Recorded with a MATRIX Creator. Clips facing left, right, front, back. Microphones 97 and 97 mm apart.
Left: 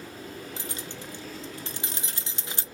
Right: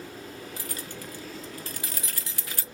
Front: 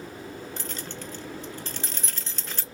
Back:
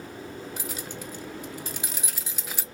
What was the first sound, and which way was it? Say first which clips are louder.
Keys jangling: even, even; 110° left.